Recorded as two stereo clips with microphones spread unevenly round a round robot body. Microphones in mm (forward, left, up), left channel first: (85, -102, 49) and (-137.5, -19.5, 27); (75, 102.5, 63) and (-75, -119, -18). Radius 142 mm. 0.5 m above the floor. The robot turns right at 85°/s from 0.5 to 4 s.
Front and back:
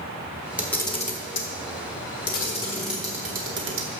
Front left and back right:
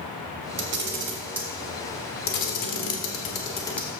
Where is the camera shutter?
120° right, 1.5 m; by 3.9 s 160° left, 1.5 m.